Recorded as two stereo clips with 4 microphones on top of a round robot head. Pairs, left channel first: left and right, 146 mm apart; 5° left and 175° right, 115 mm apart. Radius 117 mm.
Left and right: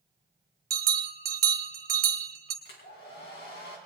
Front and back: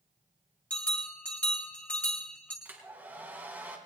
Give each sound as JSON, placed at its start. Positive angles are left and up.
{"t": 0.7, "sound": "a bell", "azimuth_deg": -75, "distance_m": 1.8}
{"t": 2.6, "sound": "a hair dryer", "azimuth_deg": 110, "distance_m": 3.5}